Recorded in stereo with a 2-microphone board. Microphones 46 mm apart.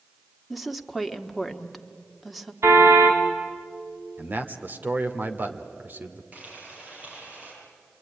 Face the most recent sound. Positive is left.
turn(degrees=-30)  # may be behind; listen again after turning